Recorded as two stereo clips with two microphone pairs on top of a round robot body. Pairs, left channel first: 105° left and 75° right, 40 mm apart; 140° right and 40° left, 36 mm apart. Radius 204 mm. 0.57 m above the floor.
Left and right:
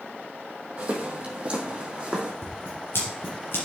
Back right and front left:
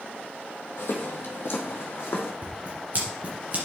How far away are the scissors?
About 1.6 m.